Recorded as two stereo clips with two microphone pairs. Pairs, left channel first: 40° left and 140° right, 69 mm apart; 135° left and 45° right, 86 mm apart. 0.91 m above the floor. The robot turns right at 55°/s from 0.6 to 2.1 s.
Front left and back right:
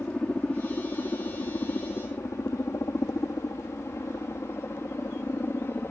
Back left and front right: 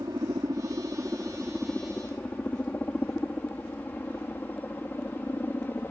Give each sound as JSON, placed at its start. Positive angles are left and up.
{"t": 0.0, "sound": "a helicopter", "azimuth_deg": -20}